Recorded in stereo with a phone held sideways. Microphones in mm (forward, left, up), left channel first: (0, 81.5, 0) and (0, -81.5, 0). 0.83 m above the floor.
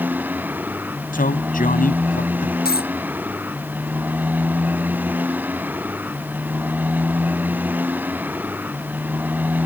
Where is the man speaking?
60° left (ahead or behind).